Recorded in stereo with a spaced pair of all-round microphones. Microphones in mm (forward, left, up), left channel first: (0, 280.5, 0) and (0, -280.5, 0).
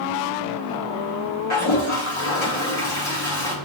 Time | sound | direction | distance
1.5 | a toilet flushing | 55° left (ahead or behind) | 1.4 m